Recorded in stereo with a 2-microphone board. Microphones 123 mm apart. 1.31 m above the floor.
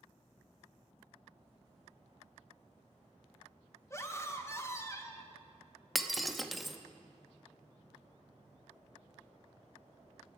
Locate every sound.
3.9 s a scream: 20° left (ahead or behind), 1.5 m
6.0 s breaking glass: centre (ahead or behind), 0.8 m